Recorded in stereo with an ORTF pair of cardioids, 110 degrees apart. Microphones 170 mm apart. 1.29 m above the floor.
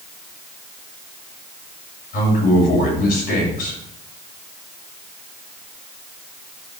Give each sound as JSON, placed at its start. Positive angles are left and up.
{"t": 2.1, "sound": "a man speaking", "azimuth_deg": 65, "distance_m": 7.5}